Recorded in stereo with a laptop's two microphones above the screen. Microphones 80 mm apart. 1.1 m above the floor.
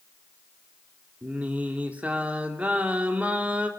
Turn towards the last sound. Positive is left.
turn(degrees=-20)  # may be behind; listen again after turning